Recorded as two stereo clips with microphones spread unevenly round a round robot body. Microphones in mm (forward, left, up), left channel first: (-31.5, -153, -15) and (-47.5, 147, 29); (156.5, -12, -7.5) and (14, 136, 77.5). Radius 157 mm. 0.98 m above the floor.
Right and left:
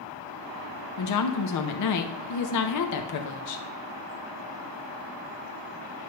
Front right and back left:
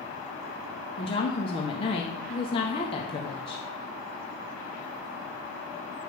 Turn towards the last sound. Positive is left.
turn(degrees=-100)